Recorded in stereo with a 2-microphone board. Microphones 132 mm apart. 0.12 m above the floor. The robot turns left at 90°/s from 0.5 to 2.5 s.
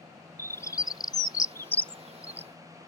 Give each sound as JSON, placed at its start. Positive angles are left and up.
{"t": 0.4, "sound": "a bird", "side_deg": 20}